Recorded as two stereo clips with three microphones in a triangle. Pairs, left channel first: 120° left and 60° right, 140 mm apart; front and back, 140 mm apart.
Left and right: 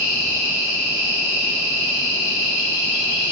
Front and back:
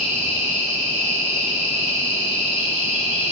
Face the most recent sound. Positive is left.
turn(degrees=160)